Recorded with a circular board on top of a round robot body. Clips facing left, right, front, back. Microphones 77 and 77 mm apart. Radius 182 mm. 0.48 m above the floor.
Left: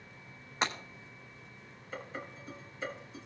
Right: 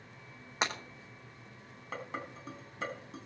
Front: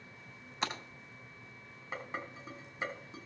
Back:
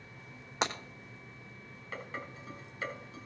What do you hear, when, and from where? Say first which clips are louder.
0.6 s breaking glass: left 1 dB, back 4 dB; 165° right, 4 m
1.9 s dishes clattering: right 2 dB, front 1 dB; 70° right, 4 m